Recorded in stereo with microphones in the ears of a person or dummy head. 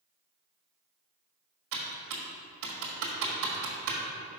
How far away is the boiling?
No boiling in this recording.